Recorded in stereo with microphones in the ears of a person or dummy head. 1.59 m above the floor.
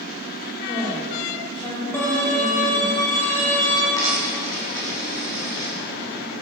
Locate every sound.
0.6 s a woman speaking: 30° left (ahead or behind), 4 m
1.9 s a violin: 15° left (ahead or behind), 4 m
4.0 s a dropped coin: 20° left (ahead or behind), 7 m